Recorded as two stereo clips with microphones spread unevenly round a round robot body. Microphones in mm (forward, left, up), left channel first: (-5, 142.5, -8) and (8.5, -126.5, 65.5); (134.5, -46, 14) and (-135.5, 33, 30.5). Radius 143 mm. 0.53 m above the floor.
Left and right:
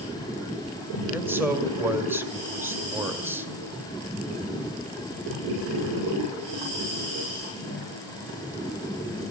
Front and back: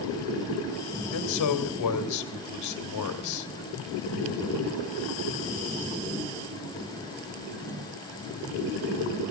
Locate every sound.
1.1 s a man speaking: straight ahead, 2 m